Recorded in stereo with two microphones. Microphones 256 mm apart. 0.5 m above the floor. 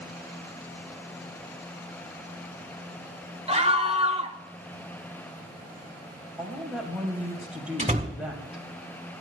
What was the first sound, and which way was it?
A scream, 25° right (ahead or behind).